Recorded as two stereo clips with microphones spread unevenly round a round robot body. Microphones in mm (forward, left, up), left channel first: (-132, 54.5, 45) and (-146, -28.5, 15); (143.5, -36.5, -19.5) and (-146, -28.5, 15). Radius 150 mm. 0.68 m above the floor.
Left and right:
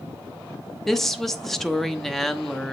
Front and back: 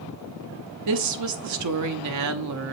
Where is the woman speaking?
Straight behind, 1.0 m.